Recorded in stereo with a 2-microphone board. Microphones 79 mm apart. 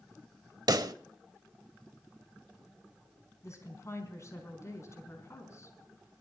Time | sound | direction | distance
0.7 | a pop | 60° right (ahead or behind) | 0.8 m
3.4 | a woman speaking | 40° left (ahead or behind) | 4.5 m